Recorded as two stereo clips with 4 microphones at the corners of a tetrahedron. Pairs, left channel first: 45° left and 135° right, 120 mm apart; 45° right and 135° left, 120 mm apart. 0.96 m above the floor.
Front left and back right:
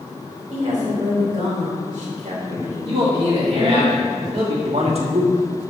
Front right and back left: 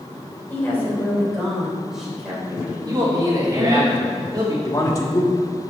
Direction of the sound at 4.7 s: 105° right.